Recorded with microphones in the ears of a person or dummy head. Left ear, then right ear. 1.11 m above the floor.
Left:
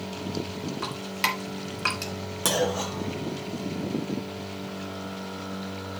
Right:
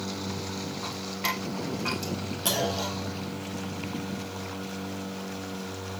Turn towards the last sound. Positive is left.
turn(degrees=55)  # may be behind; listen again after turning